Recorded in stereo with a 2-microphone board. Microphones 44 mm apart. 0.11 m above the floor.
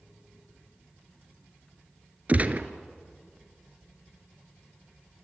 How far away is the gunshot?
About 1.0 m.